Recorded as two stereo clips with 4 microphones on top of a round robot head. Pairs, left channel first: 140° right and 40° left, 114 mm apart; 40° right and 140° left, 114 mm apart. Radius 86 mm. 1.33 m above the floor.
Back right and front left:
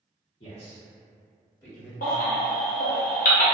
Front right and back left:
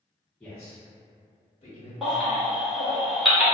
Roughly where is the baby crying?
Behind right.